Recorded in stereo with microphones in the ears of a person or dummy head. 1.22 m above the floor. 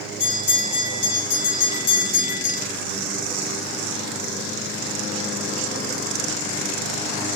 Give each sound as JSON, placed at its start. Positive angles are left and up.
{"t": 0.2, "sound": "a bell", "side_deg": 90, "distance_m": 2.5}